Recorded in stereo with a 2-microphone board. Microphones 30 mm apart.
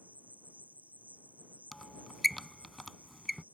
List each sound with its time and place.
0.0 s an insect: 70° right (ahead or behind)
1.7 s a squeak: 5° left (ahead or behind)